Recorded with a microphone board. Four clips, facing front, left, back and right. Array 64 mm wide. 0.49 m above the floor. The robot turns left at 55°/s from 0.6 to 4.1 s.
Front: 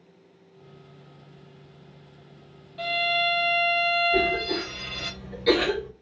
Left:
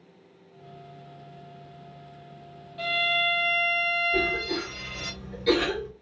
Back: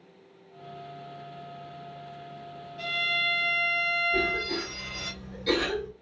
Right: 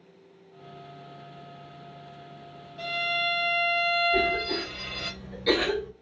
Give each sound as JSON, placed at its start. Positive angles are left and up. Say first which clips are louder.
{"t": 2.8, "sound": "a violin", "louder": "left 3 dB, front 4 dB", "azimuth_deg": 30, "distance_m": 1.0}
{"t": 4.1, "sound": "a cough", "louder": "right 1 dB, front 4 dB", "azimuth_deg": -20, "distance_m": 0.8}